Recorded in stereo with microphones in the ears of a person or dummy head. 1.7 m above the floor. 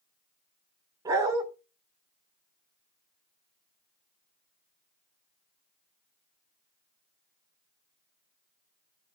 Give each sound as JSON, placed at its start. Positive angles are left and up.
{"t": 1.1, "sound": "a dog barking", "side_deg": -20, "distance_m": 2.5}